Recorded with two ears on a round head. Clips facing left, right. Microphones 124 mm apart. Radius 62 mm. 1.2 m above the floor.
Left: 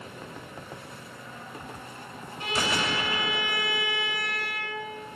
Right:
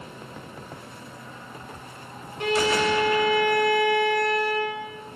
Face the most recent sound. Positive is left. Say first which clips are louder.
# right 7 dB
turn(degrees=-55)  # may be behind; listen again after turning